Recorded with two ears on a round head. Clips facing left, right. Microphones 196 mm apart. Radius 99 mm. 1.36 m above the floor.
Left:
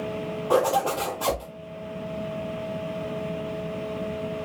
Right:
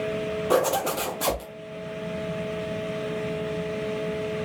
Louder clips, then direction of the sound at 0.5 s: Left 2 dB; 25° right (ahead or behind).